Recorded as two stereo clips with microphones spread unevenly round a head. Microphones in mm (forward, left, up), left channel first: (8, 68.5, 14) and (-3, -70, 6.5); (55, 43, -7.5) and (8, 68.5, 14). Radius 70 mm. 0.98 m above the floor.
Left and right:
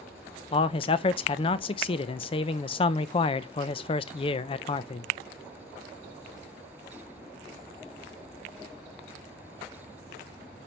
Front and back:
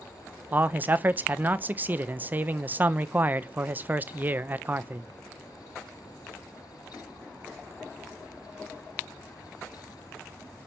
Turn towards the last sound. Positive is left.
turn(degrees=85)